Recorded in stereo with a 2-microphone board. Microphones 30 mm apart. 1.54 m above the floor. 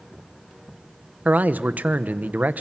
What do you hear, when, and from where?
1.2 s a man speaking: 65° right (ahead or behind), 1.1 m